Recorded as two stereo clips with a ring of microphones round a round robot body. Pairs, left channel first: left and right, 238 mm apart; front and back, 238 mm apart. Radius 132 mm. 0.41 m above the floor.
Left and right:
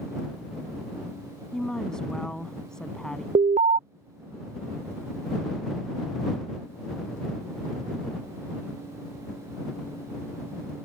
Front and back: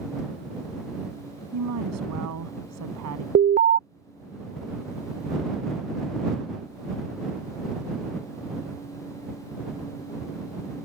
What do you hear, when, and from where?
1.5 s a woman speaking: straight behind
3.4 s an alarm: 140° right